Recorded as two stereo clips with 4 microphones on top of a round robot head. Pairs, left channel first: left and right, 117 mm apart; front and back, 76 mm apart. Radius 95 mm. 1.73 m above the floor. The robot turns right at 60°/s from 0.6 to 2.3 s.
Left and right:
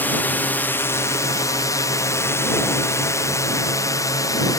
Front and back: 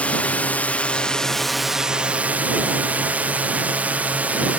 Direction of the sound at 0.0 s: 40° left.